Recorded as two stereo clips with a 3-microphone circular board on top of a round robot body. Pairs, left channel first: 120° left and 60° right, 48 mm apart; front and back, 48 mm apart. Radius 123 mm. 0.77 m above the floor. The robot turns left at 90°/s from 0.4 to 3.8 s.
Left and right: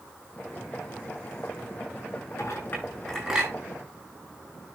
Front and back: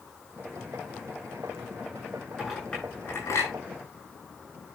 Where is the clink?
100° left, 9 m; by 3.5 s straight ahead, 9 m.